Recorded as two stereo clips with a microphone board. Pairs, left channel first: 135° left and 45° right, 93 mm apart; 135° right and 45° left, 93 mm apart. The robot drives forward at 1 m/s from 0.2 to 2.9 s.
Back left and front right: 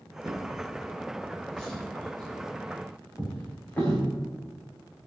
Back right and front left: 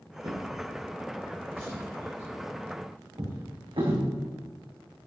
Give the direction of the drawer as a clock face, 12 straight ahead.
11 o'clock.